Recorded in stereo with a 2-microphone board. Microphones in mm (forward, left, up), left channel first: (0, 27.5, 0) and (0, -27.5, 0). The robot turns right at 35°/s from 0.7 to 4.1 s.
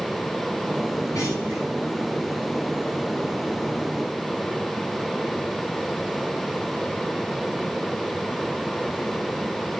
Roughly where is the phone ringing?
No phone ringing in this recording.